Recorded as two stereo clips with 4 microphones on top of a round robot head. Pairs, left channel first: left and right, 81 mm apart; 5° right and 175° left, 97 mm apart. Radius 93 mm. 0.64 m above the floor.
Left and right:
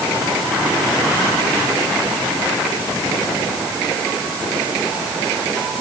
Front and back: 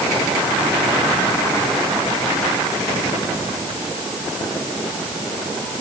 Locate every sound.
Only background noise.